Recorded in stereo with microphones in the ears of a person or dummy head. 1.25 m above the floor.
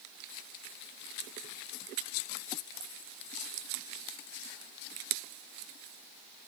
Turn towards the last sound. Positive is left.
No sound to turn to.